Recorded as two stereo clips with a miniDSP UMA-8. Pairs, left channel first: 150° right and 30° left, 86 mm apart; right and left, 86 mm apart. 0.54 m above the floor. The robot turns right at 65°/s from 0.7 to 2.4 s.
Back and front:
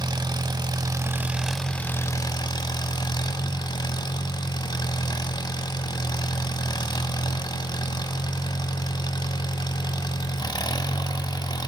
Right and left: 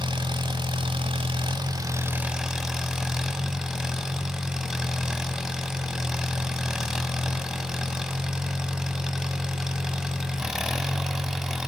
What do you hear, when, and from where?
0.0 s an engine running: 65° left, 1.0 m; by 11.7 s 175° left, 1.0 m